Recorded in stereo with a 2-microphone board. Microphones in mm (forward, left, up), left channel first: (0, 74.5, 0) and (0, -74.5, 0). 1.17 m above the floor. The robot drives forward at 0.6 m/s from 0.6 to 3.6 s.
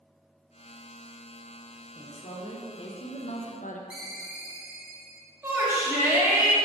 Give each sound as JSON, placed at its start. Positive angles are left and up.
{"t": 1.9, "sound": "a woman speaking", "side_deg": 25, "distance_m": 1.6}
{"t": 3.9, "sound": "a ringtone", "side_deg": 75, "distance_m": 2.0}
{"t": 5.4, "sound": "a shout", "side_deg": -15, "distance_m": 2.0}